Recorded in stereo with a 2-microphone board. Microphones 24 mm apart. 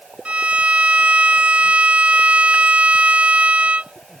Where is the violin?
80° right.